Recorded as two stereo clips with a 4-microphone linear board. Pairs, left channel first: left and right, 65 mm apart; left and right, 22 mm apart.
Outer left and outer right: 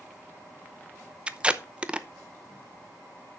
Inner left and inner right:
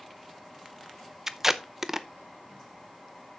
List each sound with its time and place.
1.3 s tape being pulled: 15° right (ahead or behind), 0.6 m